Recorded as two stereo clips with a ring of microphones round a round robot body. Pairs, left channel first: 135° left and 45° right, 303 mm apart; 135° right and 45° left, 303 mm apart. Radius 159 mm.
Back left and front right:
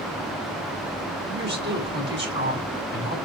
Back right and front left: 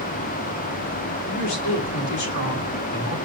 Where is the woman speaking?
100° right, 6 m.